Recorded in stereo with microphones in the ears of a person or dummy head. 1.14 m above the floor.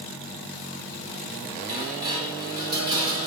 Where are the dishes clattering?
25° right (ahead or behind), 2 m.